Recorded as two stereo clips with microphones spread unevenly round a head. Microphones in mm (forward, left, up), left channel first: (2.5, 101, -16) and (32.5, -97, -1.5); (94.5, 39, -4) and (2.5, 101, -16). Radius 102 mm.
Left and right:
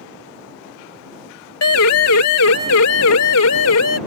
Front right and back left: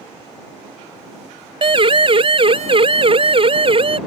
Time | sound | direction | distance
1.6 | a siren | 115° left | ?